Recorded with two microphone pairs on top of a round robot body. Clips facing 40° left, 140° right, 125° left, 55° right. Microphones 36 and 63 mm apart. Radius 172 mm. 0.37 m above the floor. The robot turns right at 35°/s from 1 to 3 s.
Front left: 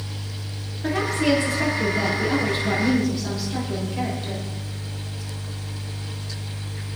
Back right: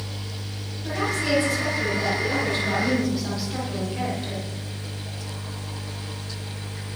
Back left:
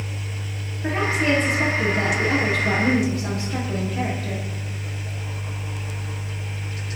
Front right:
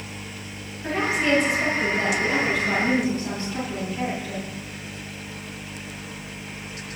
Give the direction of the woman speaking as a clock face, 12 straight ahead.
10 o'clock.